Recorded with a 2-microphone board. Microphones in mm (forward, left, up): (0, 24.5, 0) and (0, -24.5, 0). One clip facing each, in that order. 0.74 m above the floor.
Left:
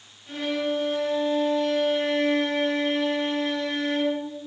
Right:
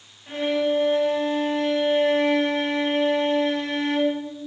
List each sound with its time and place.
0.3 s a violin: 40° right (ahead or behind), 4 m